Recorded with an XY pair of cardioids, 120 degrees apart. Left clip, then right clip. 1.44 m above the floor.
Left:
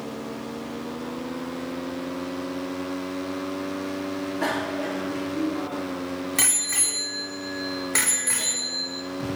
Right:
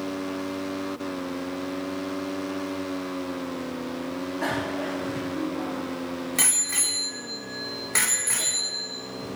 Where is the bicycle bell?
20° left, 2 m; by 9.0 s straight ahead, 4.5 m.